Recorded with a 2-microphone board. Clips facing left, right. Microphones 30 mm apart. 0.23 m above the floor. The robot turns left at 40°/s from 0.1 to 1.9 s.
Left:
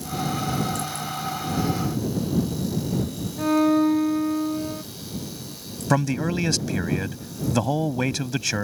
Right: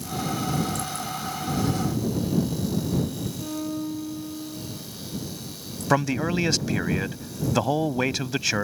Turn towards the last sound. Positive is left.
turn(degrees=-10)  # may be behind; listen again after turning